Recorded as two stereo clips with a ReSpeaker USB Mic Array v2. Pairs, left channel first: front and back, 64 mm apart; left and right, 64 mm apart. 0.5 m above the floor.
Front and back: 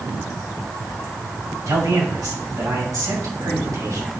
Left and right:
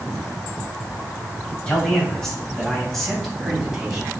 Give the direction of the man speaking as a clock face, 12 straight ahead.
6 o'clock.